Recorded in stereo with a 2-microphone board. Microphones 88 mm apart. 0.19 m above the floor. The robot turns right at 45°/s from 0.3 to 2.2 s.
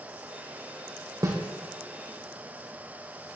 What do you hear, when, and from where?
1.2 s a snare drum: 50° right (ahead or behind), 3.5 m; by 1.4 s 40° right (ahead or behind), 3.5 m